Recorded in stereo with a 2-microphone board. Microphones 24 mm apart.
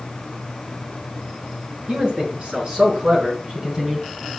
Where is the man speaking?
50° right (ahead or behind), 4.5 m; by 4.0 s 30° right (ahead or behind), 3.5 m.